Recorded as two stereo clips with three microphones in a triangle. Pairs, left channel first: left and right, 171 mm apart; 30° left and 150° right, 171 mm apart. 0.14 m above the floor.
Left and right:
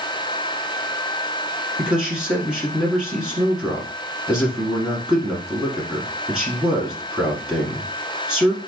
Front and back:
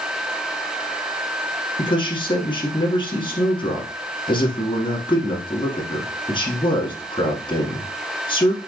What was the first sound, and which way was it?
A man speaking, 5° right.